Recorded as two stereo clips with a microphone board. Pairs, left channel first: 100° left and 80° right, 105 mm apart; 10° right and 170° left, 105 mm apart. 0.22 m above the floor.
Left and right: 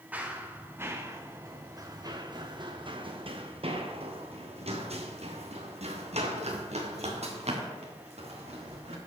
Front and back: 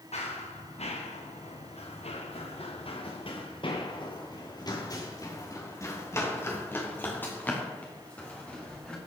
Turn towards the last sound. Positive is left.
turn(degrees=-90)